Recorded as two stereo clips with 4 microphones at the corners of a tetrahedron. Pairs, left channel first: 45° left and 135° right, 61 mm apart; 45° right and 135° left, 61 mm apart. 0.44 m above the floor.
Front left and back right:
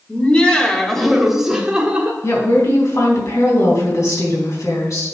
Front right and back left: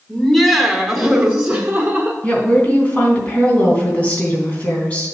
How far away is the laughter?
About 1.5 m.